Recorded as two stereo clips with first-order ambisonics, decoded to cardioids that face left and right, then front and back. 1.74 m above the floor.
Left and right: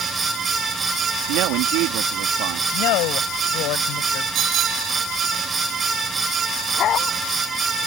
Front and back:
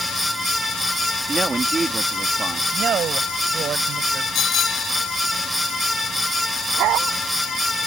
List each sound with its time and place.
1.3 s a woman speaking: 105° right
2.7 s a woman speaking: 120° left
4.3 s a bicycle bell: 50° right
6.8 s a dog barking: 145° left